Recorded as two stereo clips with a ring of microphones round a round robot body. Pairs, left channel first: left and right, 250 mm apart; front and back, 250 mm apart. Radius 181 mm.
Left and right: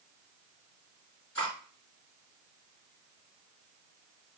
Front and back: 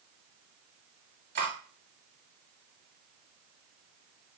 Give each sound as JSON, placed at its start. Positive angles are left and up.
{"t": 1.4, "sound": "cutlery clinking", "azimuth_deg": 135, "distance_m": 1.4}